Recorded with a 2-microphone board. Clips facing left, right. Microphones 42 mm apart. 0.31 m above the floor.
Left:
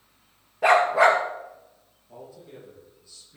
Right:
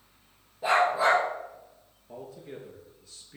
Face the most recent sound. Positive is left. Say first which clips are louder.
# right 2 dB
turn(degrees=-70)  # may be behind; listen again after turning